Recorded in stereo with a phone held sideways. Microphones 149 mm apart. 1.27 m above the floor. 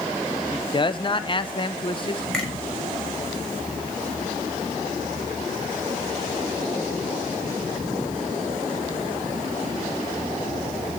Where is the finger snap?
5° left (ahead or behind), 6.5 m.